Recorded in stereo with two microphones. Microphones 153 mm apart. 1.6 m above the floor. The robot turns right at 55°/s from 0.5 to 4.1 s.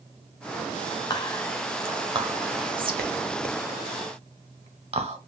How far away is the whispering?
About 0.9 m.